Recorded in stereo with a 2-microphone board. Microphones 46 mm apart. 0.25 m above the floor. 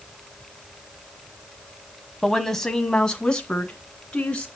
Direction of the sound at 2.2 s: 5° left (ahead or behind).